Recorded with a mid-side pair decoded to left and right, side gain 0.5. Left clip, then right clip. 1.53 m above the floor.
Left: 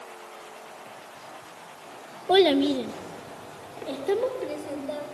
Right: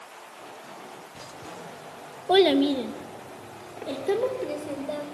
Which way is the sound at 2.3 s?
5° left.